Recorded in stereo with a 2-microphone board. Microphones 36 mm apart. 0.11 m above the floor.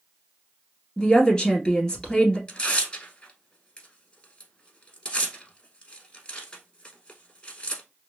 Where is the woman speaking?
20° left (ahead or behind), 1.8 m.